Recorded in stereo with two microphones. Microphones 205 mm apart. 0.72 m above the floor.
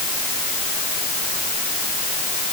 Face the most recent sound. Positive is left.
No sound to turn to.